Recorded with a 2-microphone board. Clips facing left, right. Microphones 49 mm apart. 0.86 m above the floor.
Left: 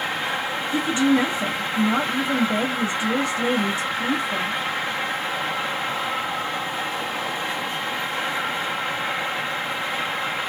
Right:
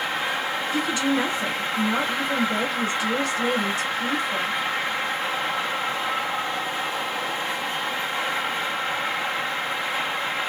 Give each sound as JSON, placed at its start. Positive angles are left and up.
{"t": 0.7, "sound": "a woman speaking", "side_deg": 35, "distance_m": 1.7}